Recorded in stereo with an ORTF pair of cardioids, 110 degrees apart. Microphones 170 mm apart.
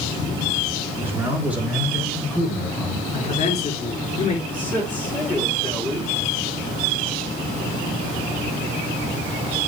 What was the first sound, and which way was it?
A man speaking, 15° right.